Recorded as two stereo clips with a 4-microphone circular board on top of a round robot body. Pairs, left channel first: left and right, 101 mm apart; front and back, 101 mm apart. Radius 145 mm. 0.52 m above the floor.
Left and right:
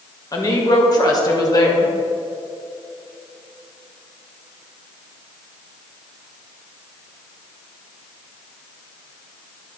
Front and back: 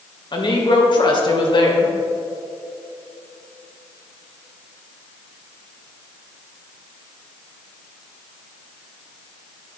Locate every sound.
0.3 s a woman speaking: 40° left, 2 m